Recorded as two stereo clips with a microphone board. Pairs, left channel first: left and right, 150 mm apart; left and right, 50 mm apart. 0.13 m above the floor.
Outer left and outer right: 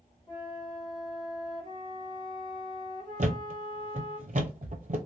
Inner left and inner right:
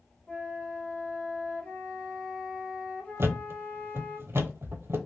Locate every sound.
0.3 s a flute: 35° left (ahead or behind), 2.0 m
3.2 s a thud: 60° right (ahead or behind), 0.6 m